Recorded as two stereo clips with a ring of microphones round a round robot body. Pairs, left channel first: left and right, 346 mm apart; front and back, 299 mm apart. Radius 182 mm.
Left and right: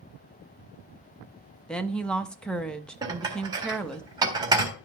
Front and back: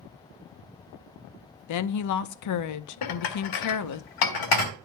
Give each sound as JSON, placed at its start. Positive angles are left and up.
{"t": 1.7, "sound": "a woman speaking", "azimuth_deg": 5, "distance_m": 0.8}
{"t": 3.0, "sound": "dishes clattering", "azimuth_deg": -10, "distance_m": 1.5}